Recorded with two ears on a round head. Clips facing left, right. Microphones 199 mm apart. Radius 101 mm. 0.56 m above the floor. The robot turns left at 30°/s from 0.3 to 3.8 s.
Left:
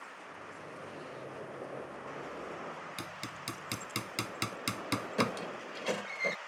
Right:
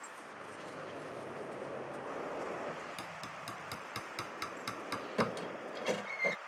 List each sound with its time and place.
3.0 s hammering: 25° left (ahead or behind); by 5.4 s 45° left (ahead or behind)
5.2 s a squeak: 5° left (ahead or behind)